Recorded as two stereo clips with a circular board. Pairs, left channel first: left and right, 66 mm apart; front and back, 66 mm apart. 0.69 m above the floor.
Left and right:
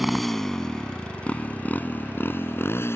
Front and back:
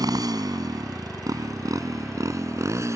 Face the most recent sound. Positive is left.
turn(degrees=140)